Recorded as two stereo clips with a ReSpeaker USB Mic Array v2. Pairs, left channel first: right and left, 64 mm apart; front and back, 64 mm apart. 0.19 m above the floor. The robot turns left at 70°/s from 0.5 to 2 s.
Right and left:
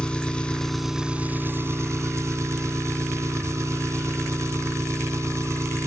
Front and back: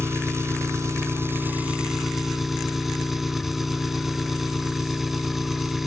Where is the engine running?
160° right, 1.5 m; by 5.9 s 95° left, 1.5 m.